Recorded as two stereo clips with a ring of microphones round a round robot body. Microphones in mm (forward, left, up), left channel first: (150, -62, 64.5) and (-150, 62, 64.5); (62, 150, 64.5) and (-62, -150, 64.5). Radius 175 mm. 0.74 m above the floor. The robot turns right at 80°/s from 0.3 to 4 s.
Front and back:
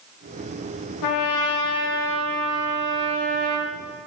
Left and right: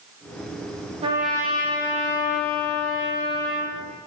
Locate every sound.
1.0 s a trumpet: 40° right, 0.6 m; by 3.8 s 175° left, 0.6 m